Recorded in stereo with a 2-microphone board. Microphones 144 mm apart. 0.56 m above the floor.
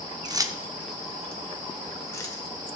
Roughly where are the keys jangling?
Right.